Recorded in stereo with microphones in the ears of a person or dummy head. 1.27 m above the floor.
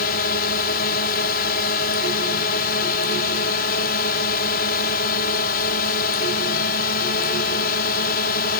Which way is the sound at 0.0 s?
55° left (ahead or behind).